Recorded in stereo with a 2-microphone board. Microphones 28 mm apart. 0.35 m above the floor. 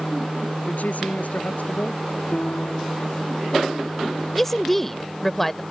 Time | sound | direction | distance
0.7 | a woman speaking | 70° left (ahead or behind) | ?
2.3 | a piano | 80° left | ?
4.3 | a woman speaking | 10° left (ahead or behind) | ?